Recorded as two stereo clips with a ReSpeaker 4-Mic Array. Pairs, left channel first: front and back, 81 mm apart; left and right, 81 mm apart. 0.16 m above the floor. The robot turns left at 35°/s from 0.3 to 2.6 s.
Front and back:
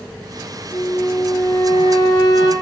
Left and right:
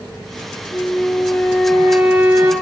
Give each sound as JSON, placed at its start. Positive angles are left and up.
{"t": 0.7, "sound": "a flute", "azimuth_deg": 30, "distance_m": 0.6}